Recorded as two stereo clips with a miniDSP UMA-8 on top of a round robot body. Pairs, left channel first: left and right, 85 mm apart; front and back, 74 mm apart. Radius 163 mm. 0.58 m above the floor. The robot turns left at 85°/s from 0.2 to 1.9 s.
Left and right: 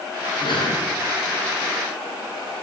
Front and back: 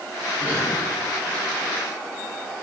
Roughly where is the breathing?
Left.